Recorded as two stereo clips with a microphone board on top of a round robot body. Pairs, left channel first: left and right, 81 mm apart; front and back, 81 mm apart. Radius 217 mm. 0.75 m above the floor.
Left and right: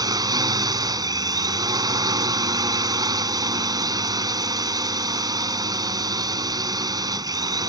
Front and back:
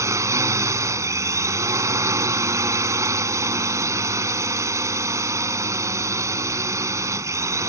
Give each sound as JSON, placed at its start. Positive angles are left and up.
{"t": 0.0, "sound": "a drone", "azimuth_deg": -130}